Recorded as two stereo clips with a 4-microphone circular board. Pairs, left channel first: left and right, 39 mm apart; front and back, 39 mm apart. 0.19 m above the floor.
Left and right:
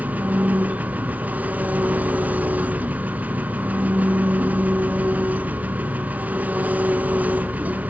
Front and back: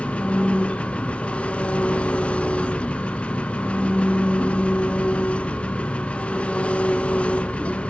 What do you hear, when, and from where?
0.0 s an engine running: 55° right, 0.9 m